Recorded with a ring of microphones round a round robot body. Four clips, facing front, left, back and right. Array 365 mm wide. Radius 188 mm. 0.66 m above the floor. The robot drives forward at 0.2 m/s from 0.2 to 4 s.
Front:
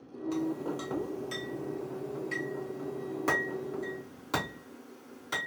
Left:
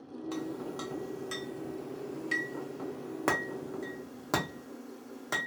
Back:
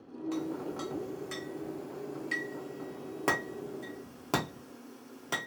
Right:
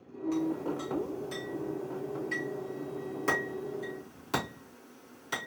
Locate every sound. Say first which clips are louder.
0.3 s a clink: right 6 dB, front 3 dB; 90° left, 0.9 m; by 5.5 s 135° left, 1.1 m